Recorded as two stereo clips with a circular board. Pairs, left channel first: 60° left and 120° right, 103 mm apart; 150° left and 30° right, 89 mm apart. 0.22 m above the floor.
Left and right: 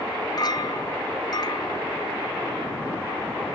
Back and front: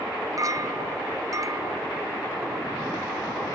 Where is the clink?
15° left.